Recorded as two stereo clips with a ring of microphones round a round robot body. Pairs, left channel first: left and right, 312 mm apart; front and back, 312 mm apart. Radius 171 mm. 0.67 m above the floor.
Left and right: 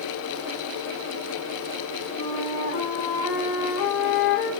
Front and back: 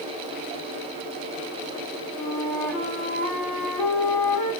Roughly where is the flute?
Left.